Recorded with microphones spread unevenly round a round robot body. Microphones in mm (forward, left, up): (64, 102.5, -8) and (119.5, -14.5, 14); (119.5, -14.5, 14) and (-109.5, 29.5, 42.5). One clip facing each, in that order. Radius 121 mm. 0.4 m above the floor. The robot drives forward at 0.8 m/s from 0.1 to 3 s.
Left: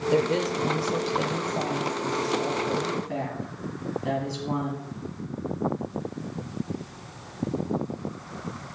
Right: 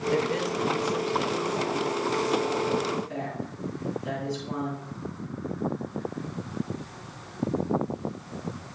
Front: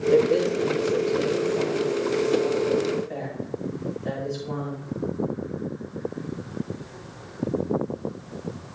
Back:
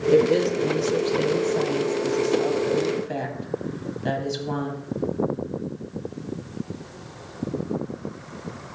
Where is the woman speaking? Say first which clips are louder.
Left 4 dB, back 2 dB; 95° left, 1.0 m; by 4.9 s 165° left, 2.5 m.